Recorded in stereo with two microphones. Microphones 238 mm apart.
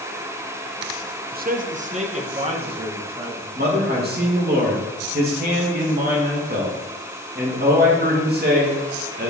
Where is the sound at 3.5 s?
40° right (ahead or behind), 2.5 m.